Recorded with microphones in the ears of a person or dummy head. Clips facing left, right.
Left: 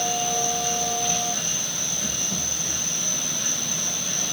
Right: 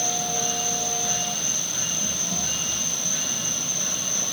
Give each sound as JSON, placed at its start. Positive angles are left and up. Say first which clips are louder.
{"t": 0.0, "sound": "an insect", "louder": "left 3 dB", "side_deg": -25, "distance_m": 2.0}